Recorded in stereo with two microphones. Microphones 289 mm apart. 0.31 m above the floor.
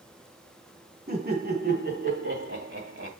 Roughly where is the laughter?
Right.